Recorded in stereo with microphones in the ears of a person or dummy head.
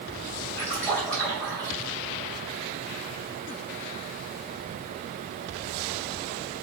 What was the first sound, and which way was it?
A splash, 5° left (ahead or behind).